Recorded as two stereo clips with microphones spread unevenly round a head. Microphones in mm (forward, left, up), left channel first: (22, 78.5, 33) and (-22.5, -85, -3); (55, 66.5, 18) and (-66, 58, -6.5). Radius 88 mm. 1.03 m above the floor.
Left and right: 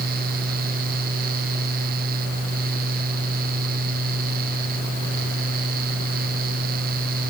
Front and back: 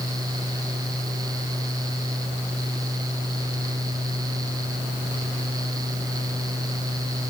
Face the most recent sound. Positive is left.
No sound to turn to.